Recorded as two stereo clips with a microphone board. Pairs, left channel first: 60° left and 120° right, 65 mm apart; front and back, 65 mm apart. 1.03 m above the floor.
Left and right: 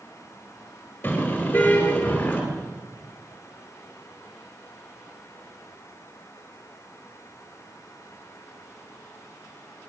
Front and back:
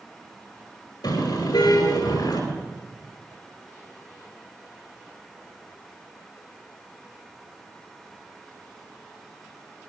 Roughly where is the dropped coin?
No dropped coin in this recording.